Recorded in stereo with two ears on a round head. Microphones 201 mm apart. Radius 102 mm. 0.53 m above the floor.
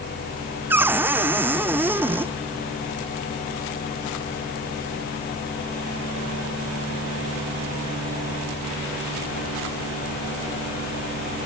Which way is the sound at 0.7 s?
10° right (ahead or behind).